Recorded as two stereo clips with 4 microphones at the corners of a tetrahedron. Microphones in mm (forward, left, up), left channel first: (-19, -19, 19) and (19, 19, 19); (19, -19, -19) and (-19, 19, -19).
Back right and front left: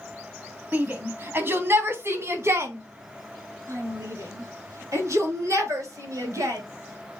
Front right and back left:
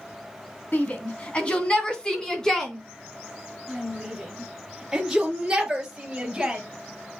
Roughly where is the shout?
Ahead.